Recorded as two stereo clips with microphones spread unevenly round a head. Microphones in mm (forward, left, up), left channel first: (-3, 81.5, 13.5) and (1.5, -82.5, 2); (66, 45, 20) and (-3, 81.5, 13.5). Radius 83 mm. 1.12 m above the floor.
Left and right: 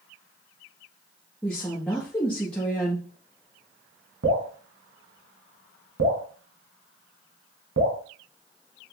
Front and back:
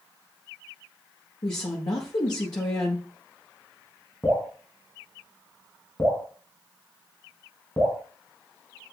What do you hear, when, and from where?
1.4 s a woman speaking: 10° left, 1.6 m
4.2 s dripping: 100° right, 2.5 m